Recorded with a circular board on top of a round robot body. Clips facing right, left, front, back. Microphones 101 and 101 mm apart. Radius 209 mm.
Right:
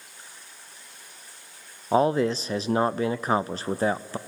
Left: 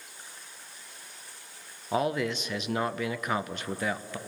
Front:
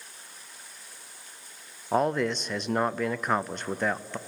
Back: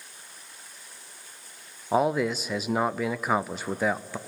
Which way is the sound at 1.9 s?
100° right.